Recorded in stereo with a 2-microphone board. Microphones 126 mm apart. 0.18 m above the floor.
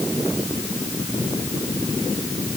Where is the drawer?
I don't hear a drawer.